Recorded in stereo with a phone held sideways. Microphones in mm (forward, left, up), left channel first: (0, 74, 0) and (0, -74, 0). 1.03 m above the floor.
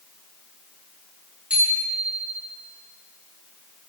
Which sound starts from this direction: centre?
A bicycle bell, at 1.5 s.